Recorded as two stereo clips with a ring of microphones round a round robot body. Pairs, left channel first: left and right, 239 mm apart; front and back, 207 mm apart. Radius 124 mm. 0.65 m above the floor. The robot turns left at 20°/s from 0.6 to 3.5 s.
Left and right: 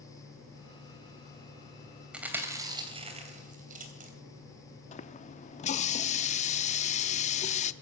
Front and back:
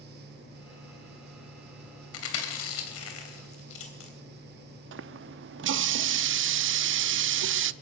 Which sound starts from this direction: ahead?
Chewing, at 2.1 s.